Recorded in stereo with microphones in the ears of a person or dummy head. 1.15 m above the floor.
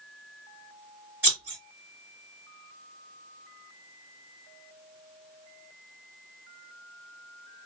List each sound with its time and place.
1.2 s scissors: 15° right (ahead or behind), 1.9 m